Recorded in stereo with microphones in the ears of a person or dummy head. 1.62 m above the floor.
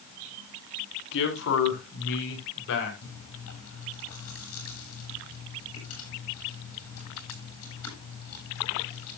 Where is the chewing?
80° left, 10 m.